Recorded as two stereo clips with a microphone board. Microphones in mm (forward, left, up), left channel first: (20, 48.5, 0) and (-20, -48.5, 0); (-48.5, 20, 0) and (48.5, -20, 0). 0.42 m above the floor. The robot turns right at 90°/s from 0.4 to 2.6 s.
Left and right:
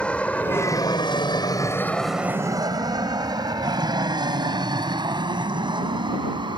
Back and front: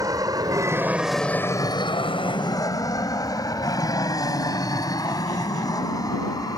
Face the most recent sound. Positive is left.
turn(degrees=-150)